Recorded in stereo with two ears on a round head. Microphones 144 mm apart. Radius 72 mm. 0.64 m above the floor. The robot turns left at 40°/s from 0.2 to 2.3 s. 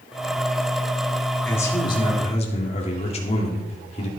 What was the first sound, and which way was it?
A man speaking, 165° left.